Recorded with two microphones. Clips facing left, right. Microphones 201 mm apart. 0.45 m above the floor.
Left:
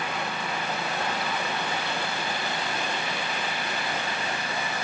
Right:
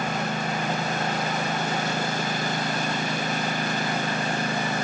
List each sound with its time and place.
0.0 s a lawn mower: 45° right (ahead or behind)